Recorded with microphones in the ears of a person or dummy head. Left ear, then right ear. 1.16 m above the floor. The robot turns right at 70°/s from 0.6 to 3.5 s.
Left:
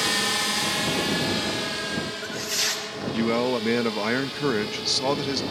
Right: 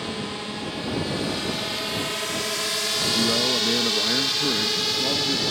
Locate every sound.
0.0 s a drone: 60° left (ahead or behind); by 5.5 s 35° right (ahead or behind)
3.1 s a man speaking: 10° left (ahead or behind); by 5.4 s 35° left (ahead or behind)